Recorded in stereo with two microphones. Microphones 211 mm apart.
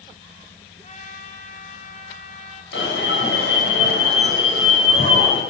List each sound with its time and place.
0.8 s a trumpet: 35° left (ahead or behind), 2.5 m
2.7 s an alarm: 70° left (ahead or behind), 5 m